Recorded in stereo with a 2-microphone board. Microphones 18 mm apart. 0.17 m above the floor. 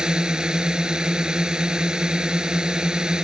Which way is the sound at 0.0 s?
45° right (ahead or behind).